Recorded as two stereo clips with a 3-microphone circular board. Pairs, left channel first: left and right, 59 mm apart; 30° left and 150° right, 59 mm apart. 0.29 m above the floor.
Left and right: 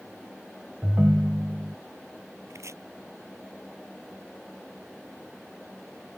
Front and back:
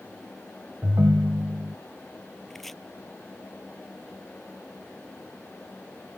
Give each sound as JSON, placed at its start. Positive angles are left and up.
{"t": 0.8, "sound": "a ringtone", "azimuth_deg": -140}
{"t": 2.5, "sound": "chopping", "azimuth_deg": -55}